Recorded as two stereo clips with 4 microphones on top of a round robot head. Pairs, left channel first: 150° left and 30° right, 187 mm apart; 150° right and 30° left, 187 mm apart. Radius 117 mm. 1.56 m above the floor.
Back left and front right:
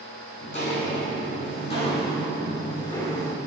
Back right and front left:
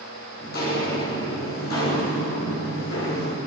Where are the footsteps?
165° right, 5.5 m; by 3.4 s 140° right, 5 m.